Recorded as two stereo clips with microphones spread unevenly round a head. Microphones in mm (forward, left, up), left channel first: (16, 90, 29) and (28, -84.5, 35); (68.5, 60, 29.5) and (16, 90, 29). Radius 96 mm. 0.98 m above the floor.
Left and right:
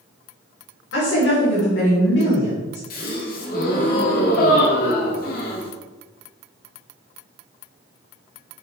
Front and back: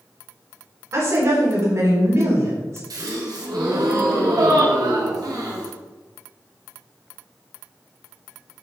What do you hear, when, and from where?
0.9 s a woman speaking: 115° left, 3.5 m
2.9 s a gasp: 140° left, 1.6 m